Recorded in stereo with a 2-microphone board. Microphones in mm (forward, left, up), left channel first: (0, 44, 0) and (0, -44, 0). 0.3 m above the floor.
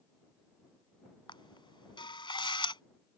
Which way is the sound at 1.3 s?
70° left (ahead or behind).